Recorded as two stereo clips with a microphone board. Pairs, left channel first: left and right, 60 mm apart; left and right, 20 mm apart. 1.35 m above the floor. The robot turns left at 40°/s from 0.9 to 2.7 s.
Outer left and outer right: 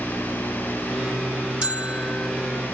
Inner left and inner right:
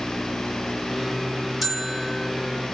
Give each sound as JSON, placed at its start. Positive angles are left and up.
{"t": 1.6, "sound": "a bell", "side_deg": -20, "distance_m": 2.0}